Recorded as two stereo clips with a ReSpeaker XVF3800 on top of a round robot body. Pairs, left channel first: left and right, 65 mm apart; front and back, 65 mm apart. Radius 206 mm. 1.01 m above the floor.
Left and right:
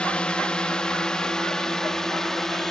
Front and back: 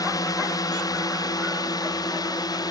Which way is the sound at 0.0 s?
20° left.